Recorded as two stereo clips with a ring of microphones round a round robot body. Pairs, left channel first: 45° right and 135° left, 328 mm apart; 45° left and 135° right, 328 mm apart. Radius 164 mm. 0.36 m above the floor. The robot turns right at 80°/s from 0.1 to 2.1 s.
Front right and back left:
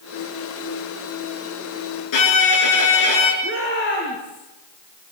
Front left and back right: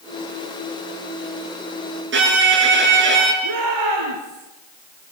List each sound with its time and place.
2.1 s a violin: 80° right, 6.5 m
3.4 s a shout: 105° right, 7.5 m